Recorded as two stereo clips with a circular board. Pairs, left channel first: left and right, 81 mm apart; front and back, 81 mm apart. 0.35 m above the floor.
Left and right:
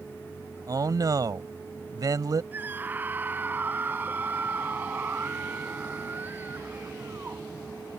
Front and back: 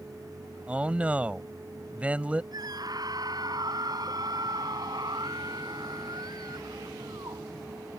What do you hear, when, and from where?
0.7 s a man speaking: 110° right
2.5 s a scream: 155° right